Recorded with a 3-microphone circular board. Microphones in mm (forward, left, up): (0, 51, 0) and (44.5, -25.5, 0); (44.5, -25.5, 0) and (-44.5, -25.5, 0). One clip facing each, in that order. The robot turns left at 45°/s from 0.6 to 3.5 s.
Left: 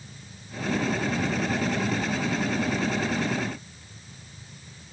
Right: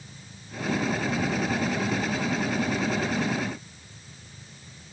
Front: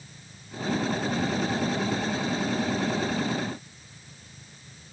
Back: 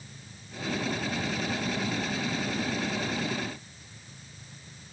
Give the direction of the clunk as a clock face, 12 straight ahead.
I don't hear a clunk.